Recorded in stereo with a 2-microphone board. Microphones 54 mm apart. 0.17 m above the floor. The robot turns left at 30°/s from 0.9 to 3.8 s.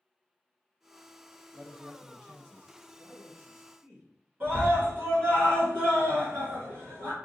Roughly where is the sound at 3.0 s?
Right.